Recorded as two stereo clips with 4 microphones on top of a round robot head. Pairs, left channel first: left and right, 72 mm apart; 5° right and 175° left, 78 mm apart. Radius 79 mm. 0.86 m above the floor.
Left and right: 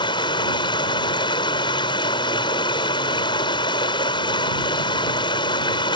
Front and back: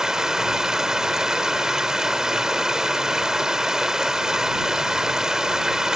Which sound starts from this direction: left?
Running water, at 0.0 s.